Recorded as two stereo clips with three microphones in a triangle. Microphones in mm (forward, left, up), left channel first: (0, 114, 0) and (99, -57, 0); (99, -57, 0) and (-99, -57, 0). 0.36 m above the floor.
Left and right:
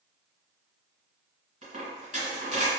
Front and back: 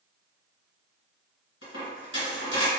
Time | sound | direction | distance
1.6 | a dropped coin | 10° right | 1.7 m